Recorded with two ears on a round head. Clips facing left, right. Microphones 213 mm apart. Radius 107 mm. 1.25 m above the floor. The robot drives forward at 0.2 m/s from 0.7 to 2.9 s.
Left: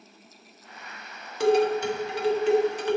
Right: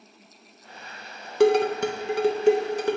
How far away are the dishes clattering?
About 0.6 m.